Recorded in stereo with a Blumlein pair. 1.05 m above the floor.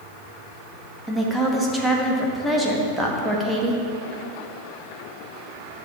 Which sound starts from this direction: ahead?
A woman speaking, at 1.1 s.